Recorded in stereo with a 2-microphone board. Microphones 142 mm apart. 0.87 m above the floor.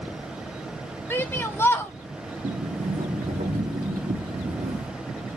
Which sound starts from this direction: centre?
A shout, at 1.1 s.